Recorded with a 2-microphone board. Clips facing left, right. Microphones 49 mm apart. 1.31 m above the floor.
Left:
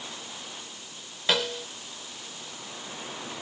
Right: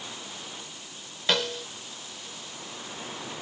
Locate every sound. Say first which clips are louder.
1.3 s a snare drum: even; 5° left (ahead or behind)